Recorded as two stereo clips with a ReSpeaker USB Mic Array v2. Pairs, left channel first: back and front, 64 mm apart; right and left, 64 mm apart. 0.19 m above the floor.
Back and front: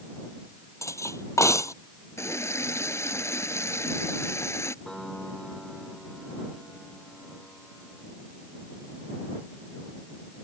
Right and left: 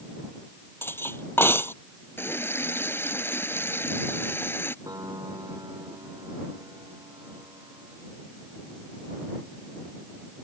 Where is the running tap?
140° right.